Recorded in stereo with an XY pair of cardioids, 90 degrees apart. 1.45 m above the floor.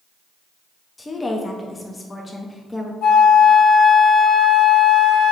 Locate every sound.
1.0 s a woman speaking: 20° left, 0.5 m
3.0 s a flute: 65° left, 0.6 m